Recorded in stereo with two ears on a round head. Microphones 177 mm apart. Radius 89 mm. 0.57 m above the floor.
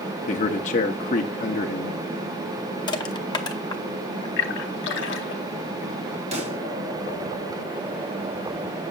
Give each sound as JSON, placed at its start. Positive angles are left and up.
{"t": 0.3, "sound": "a man speaking", "side_deg": 40, "distance_m": 0.7}
{"t": 2.9, "sound": "crushing", "side_deg": 20, "distance_m": 0.7}
{"t": 4.4, "sound": "a splash", "side_deg": 60, "distance_m": 1.2}
{"t": 6.3, "sound": "a pop", "side_deg": -35, "distance_m": 2.5}